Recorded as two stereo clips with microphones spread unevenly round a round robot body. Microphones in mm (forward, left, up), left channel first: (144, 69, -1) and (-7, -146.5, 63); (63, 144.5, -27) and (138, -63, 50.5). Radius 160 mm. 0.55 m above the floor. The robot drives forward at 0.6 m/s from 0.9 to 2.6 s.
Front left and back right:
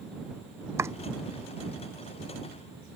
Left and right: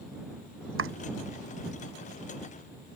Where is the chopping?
45° right.